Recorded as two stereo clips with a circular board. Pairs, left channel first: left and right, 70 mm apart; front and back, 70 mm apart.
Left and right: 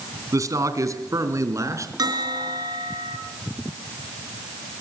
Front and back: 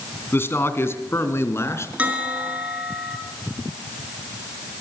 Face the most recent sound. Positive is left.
turn(degrees=-110)